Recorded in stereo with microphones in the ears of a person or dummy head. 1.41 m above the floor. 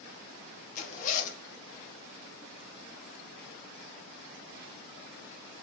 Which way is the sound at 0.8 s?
45° left (ahead or behind).